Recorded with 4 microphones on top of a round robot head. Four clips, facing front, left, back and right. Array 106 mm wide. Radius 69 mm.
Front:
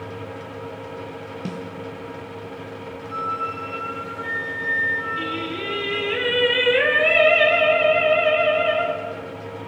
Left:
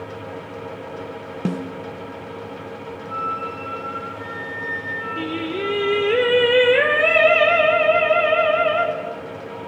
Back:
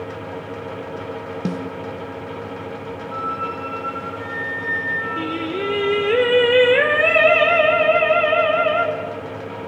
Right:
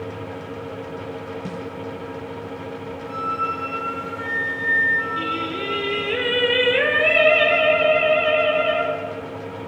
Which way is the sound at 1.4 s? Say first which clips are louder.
Left 5 dB, back 7 dB; 120° left.